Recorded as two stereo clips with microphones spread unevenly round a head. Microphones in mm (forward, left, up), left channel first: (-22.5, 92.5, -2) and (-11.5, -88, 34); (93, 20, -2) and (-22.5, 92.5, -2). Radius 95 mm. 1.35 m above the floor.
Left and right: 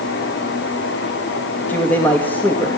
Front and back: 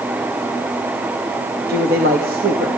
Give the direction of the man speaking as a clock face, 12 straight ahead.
6 o'clock.